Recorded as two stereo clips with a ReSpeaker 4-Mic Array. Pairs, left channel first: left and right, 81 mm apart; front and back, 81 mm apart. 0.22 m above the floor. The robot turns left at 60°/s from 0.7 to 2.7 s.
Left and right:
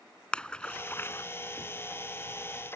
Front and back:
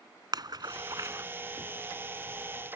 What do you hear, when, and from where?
0.3 s a splash: 165° left; by 1.2 s 135° left